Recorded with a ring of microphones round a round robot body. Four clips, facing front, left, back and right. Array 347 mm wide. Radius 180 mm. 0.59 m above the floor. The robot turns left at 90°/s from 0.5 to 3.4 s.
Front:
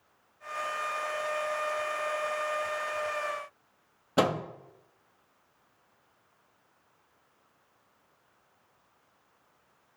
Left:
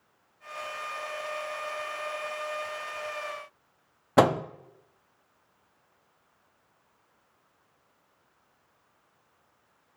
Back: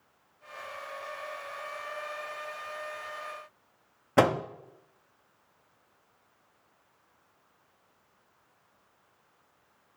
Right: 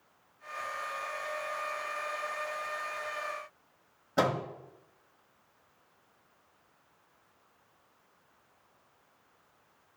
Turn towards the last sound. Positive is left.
turn(degrees=105)